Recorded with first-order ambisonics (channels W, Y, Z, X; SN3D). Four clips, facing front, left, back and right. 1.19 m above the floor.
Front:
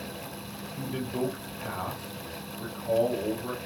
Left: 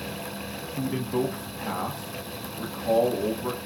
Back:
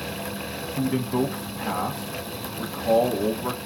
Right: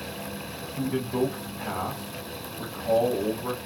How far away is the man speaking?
About 0.7 m.